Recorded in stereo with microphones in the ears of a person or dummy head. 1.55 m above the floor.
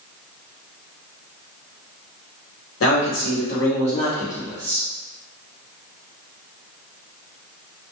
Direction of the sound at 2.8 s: 65° left (ahead or behind).